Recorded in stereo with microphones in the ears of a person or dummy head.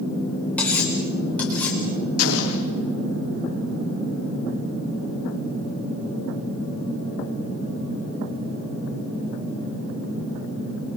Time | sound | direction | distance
0.6 | cutlery clinking | 5° left (ahead or behind) | 3.5 m
2.2 | an explosion | 85° left | 3.5 m